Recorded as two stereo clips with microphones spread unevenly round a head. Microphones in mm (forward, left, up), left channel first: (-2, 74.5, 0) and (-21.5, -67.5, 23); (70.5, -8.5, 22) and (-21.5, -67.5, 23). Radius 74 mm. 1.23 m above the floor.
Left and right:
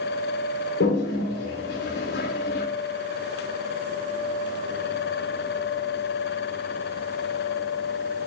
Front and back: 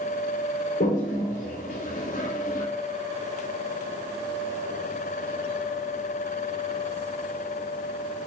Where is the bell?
No bell in this recording.